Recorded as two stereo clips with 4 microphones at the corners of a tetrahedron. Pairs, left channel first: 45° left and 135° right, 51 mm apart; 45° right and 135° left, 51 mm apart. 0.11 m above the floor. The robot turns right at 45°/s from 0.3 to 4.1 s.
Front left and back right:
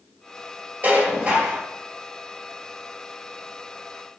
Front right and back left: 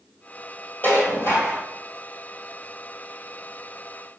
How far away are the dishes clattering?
About 1.9 m.